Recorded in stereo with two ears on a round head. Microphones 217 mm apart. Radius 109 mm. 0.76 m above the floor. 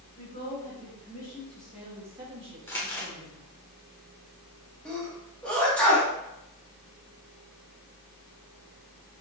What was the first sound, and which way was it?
A woman speaking, 30° left (ahead or behind).